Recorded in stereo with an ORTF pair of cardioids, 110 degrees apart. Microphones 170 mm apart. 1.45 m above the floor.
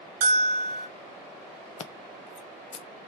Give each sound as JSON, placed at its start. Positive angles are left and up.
{"t": 0.2, "sound": "a bell", "azimuth_deg": -65, "distance_m": 0.9}
{"t": 1.8, "sound": "scissors", "azimuth_deg": 40, "distance_m": 0.6}